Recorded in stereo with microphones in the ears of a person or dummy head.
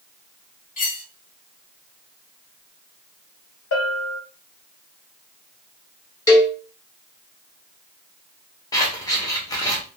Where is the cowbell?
20° left (ahead or behind), 1.2 m.